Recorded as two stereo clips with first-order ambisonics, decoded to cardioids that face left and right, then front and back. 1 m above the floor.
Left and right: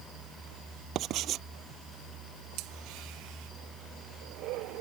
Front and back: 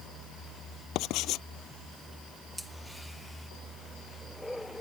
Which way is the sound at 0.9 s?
40° right.